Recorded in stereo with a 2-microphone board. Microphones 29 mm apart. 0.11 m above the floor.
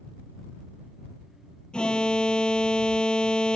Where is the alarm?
35° left (ahead or behind).